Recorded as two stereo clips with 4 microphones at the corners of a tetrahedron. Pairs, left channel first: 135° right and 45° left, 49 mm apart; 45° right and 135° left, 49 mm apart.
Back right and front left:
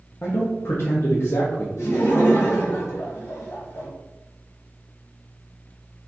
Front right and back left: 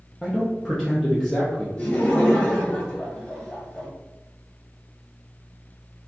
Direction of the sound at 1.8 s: 105° right.